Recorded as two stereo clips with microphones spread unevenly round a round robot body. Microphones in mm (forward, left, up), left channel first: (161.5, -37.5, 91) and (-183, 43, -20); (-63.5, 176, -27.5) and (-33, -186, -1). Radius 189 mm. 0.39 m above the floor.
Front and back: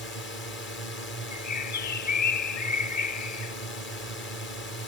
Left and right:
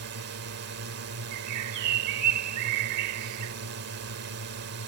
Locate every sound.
0.0 s a drone: 75° right
1.3 s a bird: 60° right